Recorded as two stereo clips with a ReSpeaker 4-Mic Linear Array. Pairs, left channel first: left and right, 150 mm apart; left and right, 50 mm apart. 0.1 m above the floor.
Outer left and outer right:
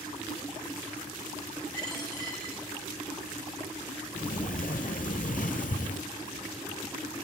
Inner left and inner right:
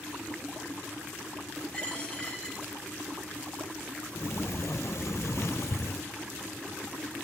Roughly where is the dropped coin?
Left.